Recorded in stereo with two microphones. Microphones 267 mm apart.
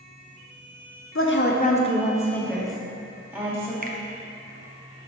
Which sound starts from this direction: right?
A finger snap, at 3.8 s.